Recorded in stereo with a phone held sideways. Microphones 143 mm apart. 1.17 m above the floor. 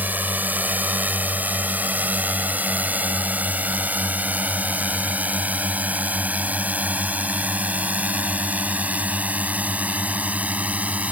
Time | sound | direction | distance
0.0 | a drone | 10° right (ahead or behind) | ?